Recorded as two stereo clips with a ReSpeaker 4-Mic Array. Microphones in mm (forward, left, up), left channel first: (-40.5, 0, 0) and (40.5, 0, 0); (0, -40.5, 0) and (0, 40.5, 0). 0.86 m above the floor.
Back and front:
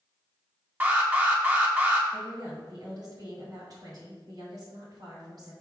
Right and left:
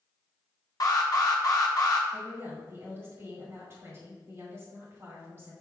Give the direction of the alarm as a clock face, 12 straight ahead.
2 o'clock.